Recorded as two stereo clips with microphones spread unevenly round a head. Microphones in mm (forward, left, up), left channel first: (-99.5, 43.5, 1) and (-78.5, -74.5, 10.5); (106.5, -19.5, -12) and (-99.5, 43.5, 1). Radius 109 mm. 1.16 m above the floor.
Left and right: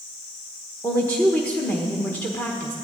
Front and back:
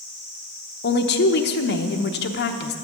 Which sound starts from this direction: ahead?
A woman speaking, at 0.8 s.